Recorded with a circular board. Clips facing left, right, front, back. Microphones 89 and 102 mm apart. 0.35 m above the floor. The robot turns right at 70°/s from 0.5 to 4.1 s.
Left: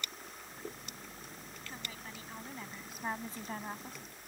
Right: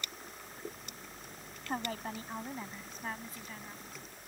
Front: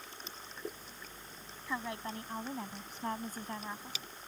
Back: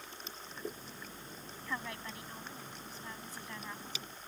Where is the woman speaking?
80° right; by 4.0 s 85° left.